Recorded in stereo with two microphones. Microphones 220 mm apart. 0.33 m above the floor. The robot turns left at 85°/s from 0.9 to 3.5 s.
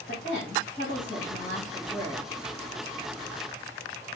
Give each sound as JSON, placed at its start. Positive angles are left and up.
{"t": 0.1, "sound": "a woman speaking", "azimuth_deg": 100, "distance_m": 1.8}